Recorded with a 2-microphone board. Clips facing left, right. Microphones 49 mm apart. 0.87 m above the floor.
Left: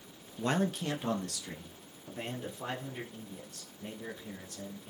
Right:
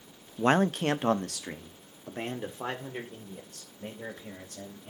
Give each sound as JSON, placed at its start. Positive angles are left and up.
{"t": 0.4, "sound": "a man speaking", "side_deg": -40, "distance_m": 0.5}